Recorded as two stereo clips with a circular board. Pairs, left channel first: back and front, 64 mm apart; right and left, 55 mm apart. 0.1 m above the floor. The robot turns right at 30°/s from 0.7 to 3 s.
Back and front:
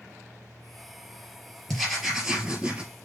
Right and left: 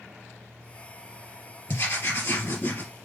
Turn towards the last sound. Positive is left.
turn(degrees=-65)